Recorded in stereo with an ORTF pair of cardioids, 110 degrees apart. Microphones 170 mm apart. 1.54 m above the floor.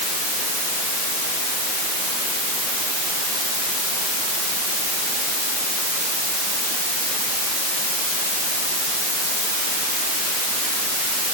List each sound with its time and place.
Only background noise.